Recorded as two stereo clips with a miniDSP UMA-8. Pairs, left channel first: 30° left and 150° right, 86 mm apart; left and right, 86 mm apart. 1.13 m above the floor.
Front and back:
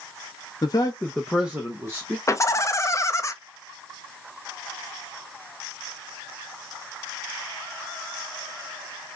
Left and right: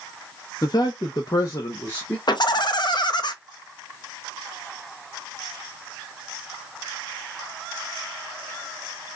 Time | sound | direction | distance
0.6 | a man speaking | 55° left | 0.7 m
2.3 | laughter | 80° left | 0.6 m